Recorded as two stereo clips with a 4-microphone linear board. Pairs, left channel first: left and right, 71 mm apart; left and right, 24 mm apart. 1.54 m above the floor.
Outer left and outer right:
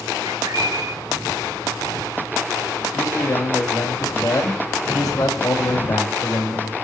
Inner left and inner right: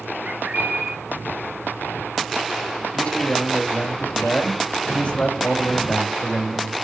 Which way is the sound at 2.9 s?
60° left (ahead or behind).